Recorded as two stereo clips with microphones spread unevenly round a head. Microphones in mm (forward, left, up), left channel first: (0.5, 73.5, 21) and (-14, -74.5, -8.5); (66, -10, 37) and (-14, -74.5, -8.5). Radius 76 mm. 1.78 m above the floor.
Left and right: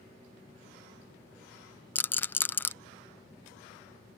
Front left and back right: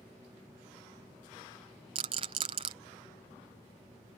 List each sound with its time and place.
1.9 s a rattle: 150° left